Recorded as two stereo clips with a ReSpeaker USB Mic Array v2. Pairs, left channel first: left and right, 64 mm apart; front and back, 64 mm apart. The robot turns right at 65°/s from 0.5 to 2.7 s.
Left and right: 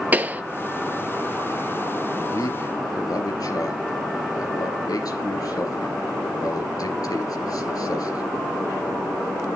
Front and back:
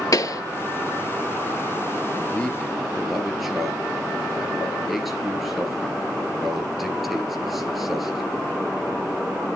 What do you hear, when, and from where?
0.1 s a pop: 25° right, 0.6 m
2.1 s a man speaking: 55° left, 3.5 m; by 8.2 s 95° left, 3.5 m